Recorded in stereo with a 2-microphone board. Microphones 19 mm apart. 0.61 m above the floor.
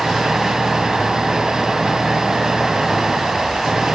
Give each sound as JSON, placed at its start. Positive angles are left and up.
{"t": 0.0, "sound": "an engine running", "side_deg": -35}